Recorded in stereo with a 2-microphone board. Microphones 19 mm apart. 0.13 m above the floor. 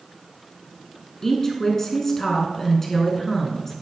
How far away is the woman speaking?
About 1.1 m.